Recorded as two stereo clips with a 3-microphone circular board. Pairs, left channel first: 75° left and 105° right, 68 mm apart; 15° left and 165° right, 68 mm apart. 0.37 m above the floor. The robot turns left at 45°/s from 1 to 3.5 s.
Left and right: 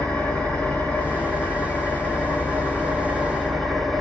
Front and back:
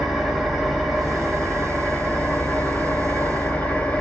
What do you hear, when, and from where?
0.0 s an engine running: 100° left, 0.7 m; by 4.0 s 10° right, 0.7 m